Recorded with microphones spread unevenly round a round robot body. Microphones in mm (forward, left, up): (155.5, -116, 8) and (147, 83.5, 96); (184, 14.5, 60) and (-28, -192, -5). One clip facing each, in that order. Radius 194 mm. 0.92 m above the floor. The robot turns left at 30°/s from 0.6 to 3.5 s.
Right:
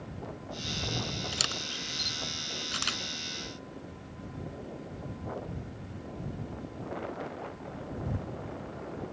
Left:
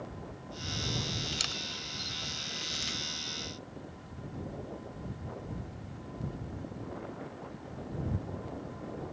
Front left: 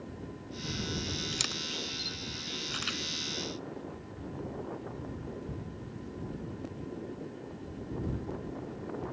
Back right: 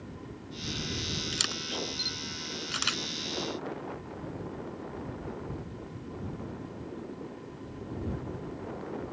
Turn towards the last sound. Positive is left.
turn(degrees=-130)